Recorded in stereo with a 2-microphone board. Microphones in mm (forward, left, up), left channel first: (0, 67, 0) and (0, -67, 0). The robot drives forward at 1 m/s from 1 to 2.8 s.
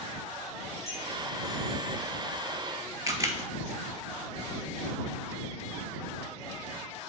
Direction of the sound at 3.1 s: 25° right (ahead or behind).